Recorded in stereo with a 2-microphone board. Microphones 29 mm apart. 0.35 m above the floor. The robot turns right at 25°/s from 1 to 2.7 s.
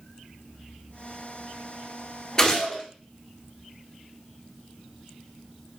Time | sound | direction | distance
2.4 | a gunshot | 20° left (ahead or behind) | 1.2 m